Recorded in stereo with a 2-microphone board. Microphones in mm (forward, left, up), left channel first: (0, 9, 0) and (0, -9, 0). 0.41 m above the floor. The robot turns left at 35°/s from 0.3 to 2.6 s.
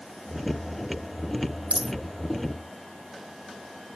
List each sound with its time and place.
1.7 s a dropped coin: 85° right; by 1.9 s 80° right